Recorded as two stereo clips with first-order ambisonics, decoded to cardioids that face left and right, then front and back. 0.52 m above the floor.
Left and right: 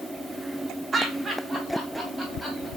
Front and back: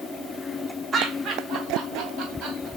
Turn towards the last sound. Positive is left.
turn(degrees=-175)